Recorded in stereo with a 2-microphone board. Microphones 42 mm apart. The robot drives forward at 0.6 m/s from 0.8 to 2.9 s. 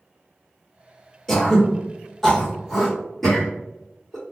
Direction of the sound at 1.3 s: 5° left (ahead or behind).